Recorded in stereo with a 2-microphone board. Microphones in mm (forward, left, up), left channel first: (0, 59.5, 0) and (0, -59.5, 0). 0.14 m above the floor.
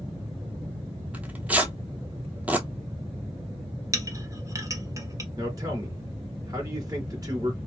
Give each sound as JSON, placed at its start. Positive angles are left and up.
{"t": 1.1, "sound": "tearing paper", "side_deg": -10, "distance_m": 0.6}
{"t": 3.9, "sound": "a clink", "side_deg": -30, "distance_m": 0.7}
{"t": 5.4, "sound": "a man speaking", "side_deg": -30, "distance_m": 1.9}